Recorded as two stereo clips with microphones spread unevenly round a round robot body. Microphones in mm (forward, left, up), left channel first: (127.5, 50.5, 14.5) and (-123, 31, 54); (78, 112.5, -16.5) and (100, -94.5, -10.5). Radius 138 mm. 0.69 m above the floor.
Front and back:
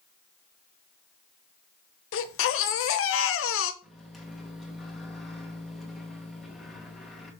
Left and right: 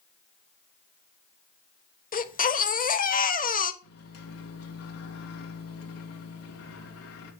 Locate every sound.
2.1 s a baby crying: 45° left, 0.9 m
3.8 s a microwave: 95° left, 2.5 m